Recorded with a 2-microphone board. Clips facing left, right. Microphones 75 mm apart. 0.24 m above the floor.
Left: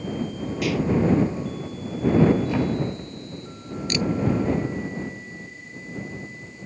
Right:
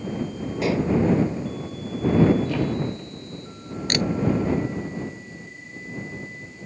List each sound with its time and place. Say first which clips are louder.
0.6 s dishes clattering: right 1 dB; 30° right (ahead or behind)
2.5 s a thud: left 1 dB; 20° left (ahead or behind)
3.9 s a camera shutter: right 1 dB; 60° right (ahead or behind)